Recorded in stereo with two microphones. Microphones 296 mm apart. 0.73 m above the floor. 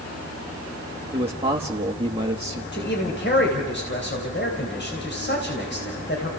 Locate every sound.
1.1 s a man speaking: 20° right (ahead or behind), 1.3 m
2.7 s a man speaking: 35° left (ahead or behind), 3.5 m